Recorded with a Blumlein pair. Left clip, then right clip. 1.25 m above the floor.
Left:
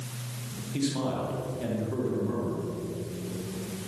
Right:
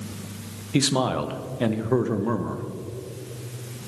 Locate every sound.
0.7 s a man speaking: 35° right, 0.9 m